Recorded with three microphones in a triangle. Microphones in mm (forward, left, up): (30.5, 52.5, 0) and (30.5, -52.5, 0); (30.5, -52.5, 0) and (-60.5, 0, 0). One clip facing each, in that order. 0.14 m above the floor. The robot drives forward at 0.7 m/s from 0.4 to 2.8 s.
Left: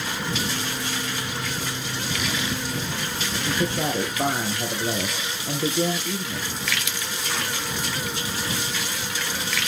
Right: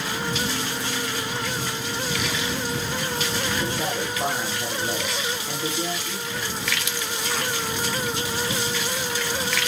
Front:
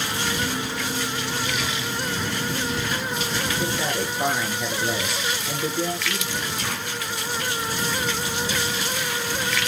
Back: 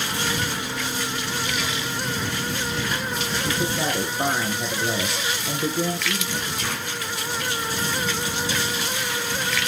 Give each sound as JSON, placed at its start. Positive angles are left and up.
{"t": 3.5, "sound": "a man speaking", "azimuth_deg": 95, "distance_m": 2.5}